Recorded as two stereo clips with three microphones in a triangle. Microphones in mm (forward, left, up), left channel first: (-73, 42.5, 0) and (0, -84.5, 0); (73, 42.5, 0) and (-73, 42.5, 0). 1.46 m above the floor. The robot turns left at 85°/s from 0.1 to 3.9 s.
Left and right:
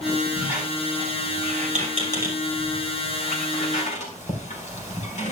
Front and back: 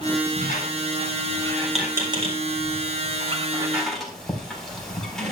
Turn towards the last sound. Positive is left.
turn(degrees=85)